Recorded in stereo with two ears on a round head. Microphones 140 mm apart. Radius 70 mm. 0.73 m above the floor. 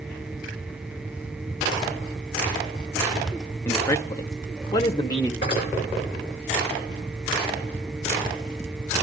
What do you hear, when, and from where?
3.6 s a man speaking: 15° left (ahead or behind), 0.8 m; by 5.3 s 20° left (ahead or behind), 0.9 m
5.4 s cutlery clinking: 40° left (ahead or behind), 7.5 m